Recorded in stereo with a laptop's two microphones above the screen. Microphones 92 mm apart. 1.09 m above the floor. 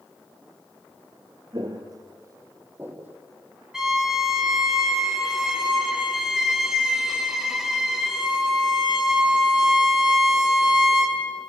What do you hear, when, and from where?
1.5 s footsteps: 50° right (ahead or behind), 1.6 m; by 3.2 s 20° right (ahead or behind), 2.5 m
3.7 s a violin: 10° right (ahead or behind), 4 m